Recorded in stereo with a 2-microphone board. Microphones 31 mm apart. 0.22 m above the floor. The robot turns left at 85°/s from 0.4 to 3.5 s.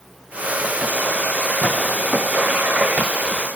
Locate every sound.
1.6 s a clap: 55° left (ahead or behind), 8 m; by 1.8 s 65° left (ahead or behind), 8 m